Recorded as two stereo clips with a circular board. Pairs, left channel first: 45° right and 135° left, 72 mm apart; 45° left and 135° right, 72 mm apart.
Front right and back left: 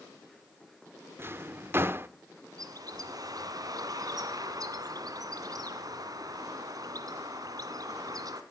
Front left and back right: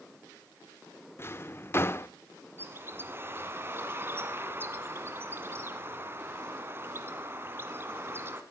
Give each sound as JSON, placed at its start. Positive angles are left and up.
{"t": 1.2, "sound": "a drawer", "azimuth_deg": 90, "distance_m": 0.6}
{"t": 2.6, "sound": "a bird", "azimuth_deg": 165, "distance_m": 1.8}